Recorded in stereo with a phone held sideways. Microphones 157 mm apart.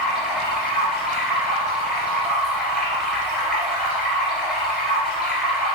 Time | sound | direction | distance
0.0 | running water | 5° right (ahead or behind) | 1.8 m